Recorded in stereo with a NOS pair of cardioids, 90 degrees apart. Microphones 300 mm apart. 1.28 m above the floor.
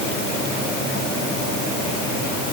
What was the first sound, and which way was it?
Only background noise.